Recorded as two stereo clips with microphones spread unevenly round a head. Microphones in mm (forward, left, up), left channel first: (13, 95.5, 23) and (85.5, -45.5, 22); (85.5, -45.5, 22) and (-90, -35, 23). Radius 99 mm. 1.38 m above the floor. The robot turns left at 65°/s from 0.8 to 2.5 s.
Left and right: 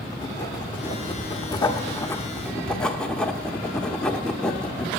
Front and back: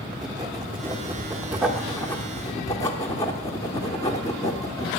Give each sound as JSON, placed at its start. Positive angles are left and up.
{"t": 0.1, "sound": "writing", "azimuth_deg": 150, "distance_m": 1.0}